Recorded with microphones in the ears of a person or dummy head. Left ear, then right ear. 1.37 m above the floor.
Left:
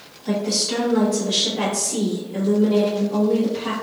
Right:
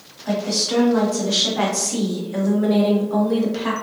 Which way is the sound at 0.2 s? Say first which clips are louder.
Right 1 dB; 10° right (ahead or behind).